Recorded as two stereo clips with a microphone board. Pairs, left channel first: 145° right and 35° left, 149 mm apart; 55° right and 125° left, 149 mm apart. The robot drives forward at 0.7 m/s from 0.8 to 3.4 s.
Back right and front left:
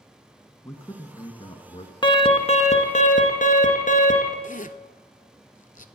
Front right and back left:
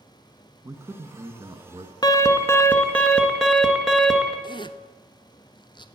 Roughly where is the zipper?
Behind right.